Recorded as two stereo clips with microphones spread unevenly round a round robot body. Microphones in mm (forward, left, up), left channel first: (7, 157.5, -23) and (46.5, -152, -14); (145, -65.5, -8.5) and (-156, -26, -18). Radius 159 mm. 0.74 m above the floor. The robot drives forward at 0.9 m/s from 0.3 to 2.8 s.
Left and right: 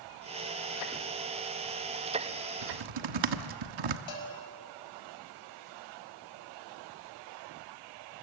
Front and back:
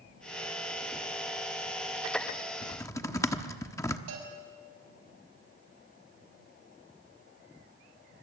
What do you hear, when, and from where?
2.6 s typing on a keyboard: 80° right, 1.2 m; by 4.0 s 90° right, 1.1 m
4.1 s a bell: 125° left, 6 m